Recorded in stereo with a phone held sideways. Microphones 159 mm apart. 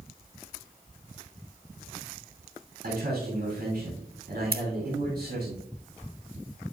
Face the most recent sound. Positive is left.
turn(degrees=-70)  # may be behind; listen again after turning